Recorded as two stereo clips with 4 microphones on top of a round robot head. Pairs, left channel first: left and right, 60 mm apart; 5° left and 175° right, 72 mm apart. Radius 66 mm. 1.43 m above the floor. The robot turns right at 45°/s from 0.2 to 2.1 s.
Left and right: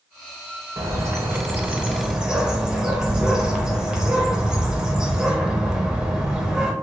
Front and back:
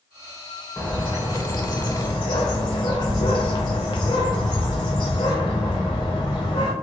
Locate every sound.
0.8 s a bird: 70° right, 0.5 m; by 6.7 s 10° right, 0.5 m